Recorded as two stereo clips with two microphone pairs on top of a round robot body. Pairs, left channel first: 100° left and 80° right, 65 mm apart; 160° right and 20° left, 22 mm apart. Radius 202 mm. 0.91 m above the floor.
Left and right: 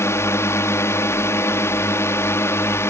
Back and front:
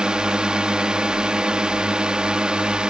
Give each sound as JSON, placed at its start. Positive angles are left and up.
{"t": 0.0, "sound": "a drone", "azimuth_deg": 60}